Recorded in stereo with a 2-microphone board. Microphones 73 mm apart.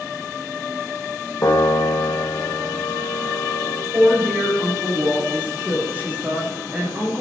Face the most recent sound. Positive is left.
turn(degrees=-25)  # may be behind; listen again after turning